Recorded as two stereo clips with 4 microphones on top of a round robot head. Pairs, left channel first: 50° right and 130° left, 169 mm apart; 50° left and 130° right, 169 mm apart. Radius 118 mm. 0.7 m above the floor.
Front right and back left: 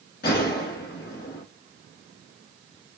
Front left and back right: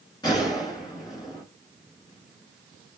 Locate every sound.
0.2 s a gunshot: 15° right, 1.5 m